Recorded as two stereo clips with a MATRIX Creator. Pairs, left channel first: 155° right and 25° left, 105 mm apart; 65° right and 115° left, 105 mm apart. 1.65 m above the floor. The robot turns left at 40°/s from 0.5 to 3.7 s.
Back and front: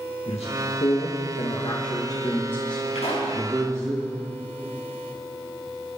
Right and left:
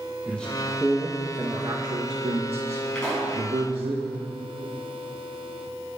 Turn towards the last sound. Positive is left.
turn(degrees=180)